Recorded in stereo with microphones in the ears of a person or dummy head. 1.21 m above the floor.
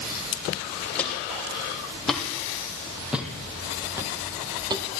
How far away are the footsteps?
About 3 m.